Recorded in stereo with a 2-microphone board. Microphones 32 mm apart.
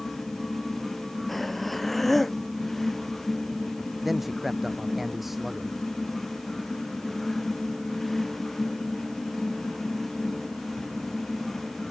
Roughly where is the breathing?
Centre.